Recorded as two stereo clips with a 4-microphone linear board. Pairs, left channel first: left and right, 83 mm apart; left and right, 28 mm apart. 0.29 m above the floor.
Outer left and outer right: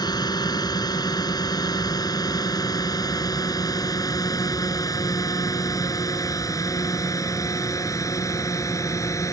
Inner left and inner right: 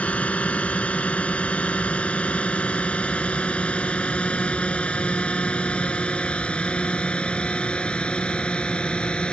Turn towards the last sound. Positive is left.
turn(degrees=40)  # may be behind; listen again after turning